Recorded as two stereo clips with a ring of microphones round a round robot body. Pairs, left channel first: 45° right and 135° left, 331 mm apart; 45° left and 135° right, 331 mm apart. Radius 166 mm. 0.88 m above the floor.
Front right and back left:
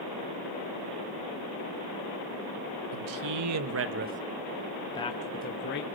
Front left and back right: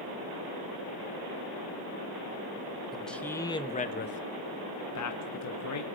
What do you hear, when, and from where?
2.9 s a man speaking: 135° left, 1.6 m; by 5.8 s 10° left, 1.9 m